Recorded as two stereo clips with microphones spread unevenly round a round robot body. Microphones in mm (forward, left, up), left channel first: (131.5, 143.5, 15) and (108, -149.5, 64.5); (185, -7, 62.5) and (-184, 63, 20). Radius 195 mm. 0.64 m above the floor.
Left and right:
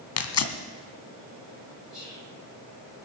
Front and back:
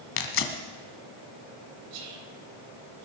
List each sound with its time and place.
0.2 s tearing paper: 45° left, 1.8 m
1.9 s whispering: 175° left, 3.5 m